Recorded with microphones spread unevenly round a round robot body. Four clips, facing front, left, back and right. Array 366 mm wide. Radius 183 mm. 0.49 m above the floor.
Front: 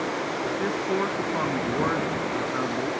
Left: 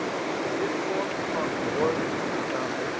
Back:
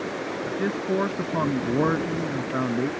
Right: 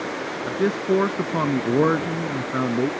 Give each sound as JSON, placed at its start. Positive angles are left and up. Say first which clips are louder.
{"t": 0.5, "sound": "a man speaking", "louder": "right 10 dB, back 2 dB", "azimuth_deg": -110}